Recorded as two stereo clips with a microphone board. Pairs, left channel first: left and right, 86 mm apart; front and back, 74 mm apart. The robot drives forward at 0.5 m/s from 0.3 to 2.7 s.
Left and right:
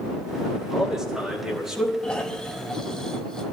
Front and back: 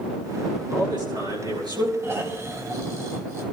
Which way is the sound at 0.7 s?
175° right.